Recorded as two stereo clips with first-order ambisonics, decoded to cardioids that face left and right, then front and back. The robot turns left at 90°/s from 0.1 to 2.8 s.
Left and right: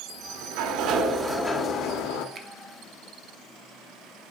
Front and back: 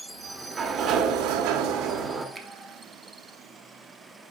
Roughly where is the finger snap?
Behind right.